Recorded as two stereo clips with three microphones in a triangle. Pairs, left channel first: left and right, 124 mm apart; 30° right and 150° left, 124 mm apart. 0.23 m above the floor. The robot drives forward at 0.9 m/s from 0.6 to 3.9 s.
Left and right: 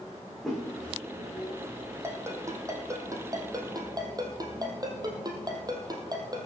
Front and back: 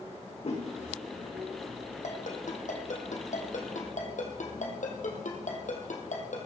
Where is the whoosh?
5° left, 5.5 m.